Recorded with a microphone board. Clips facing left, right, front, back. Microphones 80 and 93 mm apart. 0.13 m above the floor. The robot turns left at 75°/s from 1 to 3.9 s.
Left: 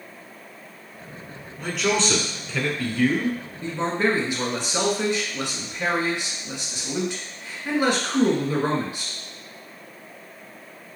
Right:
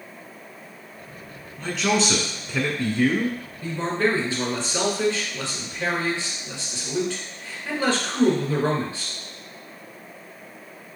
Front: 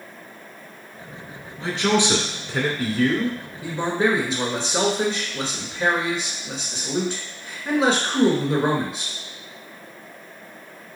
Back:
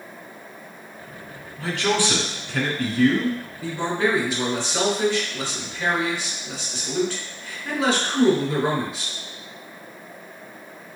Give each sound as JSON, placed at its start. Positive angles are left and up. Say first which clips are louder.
{"t": 1.6, "sound": "a man speaking", "louder": "right 1 dB, front 2 dB", "azimuth_deg": 20, "distance_m": 1.1}
{"t": 3.6, "sound": "a man speaking", "louder": "even, front 2 dB", "azimuth_deg": 60, "distance_m": 1.4}